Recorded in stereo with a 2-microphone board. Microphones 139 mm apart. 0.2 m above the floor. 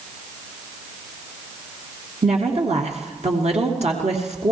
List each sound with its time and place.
2.2 s a woman speaking: 55° right (ahead or behind), 3 m